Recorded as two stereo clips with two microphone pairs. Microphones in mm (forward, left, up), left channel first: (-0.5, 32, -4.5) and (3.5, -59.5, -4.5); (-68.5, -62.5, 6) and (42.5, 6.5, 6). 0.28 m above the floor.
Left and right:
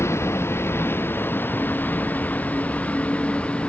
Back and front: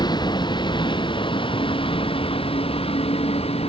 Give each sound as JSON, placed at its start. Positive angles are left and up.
{"t": 0.0, "sound": "a vehicle", "azimuth_deg": 155}